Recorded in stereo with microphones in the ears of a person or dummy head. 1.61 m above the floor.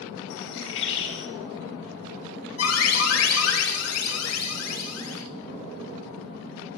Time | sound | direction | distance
0.3 | a bird | 65° left (ahead or behind) | 2.5 m
2.6 | an alarm | 80° left | 5 m